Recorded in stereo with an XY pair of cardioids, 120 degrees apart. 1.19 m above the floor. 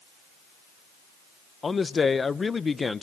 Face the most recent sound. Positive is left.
turn(degrees=25)